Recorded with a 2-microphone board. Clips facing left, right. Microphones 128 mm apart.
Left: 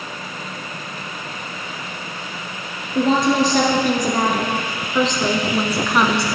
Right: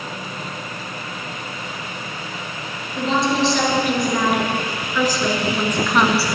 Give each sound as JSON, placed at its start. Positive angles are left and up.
{"t": 3.0, "sound": "a woman speaking", "side_deg": 55, "distance_m": 2.5}